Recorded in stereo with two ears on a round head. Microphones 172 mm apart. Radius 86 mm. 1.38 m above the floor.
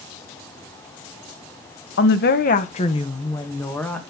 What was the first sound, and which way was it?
A woman speaking, 65° left (ahead or behind).